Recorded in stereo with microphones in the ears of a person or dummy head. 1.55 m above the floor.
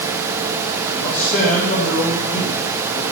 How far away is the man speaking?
About 2.5 m.